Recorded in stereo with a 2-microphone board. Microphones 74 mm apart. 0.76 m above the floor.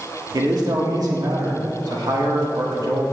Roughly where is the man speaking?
Right.